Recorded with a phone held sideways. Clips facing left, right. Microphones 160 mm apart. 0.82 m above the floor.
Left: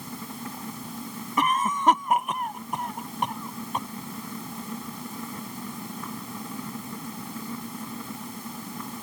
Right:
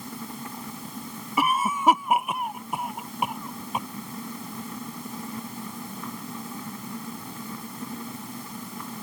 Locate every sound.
1.4 s a cough: 10° right (ahead or behind)